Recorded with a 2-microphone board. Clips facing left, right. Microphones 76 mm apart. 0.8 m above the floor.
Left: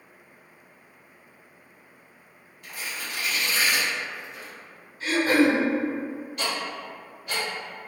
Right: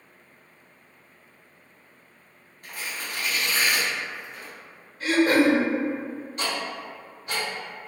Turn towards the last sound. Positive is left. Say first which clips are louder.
# right 1 dB
turn(degrees=-30)  # may be behind; listen again after turning